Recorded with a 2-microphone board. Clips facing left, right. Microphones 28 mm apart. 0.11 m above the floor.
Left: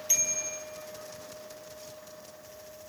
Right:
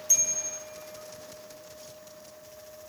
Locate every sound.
0.1 s a bicycle bell: 30° left (ahead or behind), 2 m